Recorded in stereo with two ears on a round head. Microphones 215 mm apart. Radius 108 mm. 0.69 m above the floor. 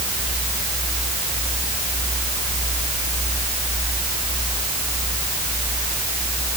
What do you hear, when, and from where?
Only background noise.